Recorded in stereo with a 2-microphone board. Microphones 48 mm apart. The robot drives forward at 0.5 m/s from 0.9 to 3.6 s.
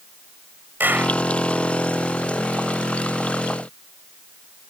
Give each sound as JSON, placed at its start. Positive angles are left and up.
{"t": 0.8, "sound": "a clap", "side_deg": -40}